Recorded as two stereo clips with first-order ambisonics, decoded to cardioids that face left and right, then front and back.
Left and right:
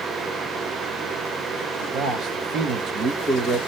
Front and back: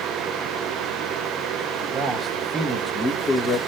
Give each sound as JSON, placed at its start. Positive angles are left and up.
{"t": 1.8, "sound": "a man speaking", "azimuth_deg": -120, "distance_m": 1.0}